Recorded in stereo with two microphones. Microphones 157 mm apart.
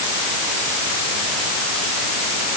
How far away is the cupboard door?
I don't hear a cupboard door.